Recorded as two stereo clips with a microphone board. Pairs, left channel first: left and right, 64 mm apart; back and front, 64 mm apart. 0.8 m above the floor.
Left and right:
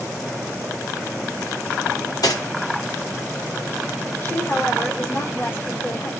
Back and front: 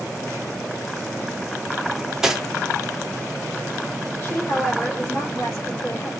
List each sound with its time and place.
1.9 s cutlery clinking: 80° left, 0.6 m
4.2 s a woman speaking: 135° left, 1.1 m